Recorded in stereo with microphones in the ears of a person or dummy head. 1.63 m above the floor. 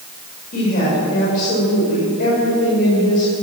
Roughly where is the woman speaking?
Left.